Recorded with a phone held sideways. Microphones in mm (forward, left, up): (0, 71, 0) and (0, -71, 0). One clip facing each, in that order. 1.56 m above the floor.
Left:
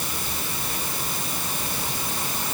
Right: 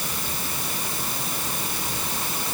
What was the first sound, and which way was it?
Only background noise.